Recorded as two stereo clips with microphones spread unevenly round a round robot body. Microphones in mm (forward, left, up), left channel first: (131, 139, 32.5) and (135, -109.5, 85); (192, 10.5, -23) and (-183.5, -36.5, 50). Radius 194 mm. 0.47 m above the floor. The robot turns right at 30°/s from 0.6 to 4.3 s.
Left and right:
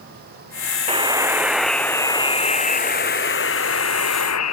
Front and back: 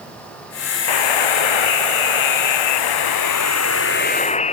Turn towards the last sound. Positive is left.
turn(degrees=80)